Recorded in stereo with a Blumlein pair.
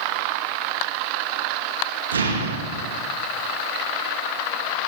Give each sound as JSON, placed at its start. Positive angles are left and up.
{"t": 2.1, "sound": "an explosion", "azimuth_deg": -65, "distance_m": 2.5}